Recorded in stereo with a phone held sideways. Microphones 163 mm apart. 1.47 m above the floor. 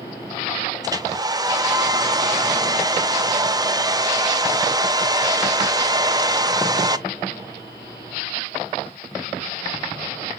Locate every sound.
0.8 s a hair dryer: 25° right (ahead or behind), 0.6 m